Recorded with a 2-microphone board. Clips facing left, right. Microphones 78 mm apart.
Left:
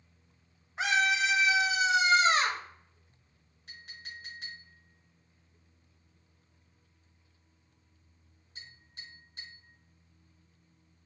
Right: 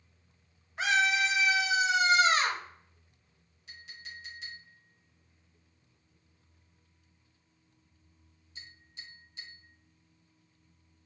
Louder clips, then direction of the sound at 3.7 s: Even; 55° left (ahead or behind).